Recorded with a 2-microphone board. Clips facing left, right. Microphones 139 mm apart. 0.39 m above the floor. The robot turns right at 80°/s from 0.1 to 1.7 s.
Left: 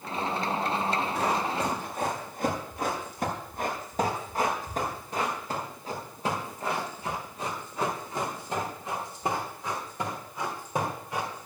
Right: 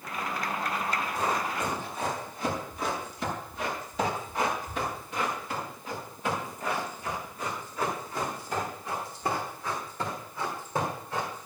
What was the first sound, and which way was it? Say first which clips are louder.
Running footsteps: left 2 dB; 75° left (ahead or behind).